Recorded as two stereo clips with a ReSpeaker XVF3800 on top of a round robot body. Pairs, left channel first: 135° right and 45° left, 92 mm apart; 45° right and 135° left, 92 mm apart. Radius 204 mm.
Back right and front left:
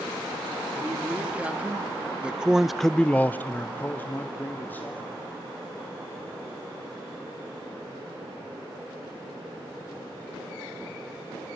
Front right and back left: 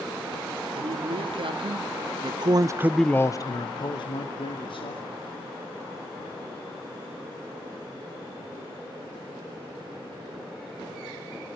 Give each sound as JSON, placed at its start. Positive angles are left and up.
{"t": 0.8, "sound": "a man speaking", "azimuth_deg": 120, "distance_m": 3.0}